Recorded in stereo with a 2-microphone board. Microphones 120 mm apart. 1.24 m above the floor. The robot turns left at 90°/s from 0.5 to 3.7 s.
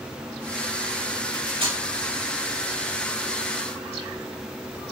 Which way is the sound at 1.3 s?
30° right (ahead or behind).